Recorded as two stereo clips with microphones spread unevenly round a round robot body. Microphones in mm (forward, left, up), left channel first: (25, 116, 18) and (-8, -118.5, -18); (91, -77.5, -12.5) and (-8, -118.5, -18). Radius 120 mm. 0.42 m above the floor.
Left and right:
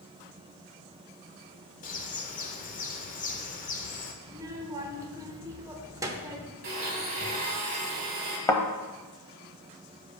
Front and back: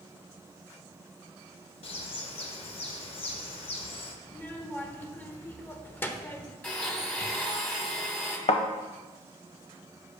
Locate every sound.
1.8 s a bird: 25° left, 0.9 m
4.2 s a child speaking: 40° right, 1.0 m
6.6 s a blender: 50° right, 2.5 m
8.5 s a thud: 5° left, 0.9 m